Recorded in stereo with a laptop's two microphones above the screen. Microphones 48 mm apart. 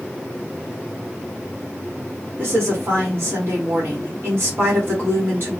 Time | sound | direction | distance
2.4 | a woman speaking | 60° right (ahead or behind) | 1.4 m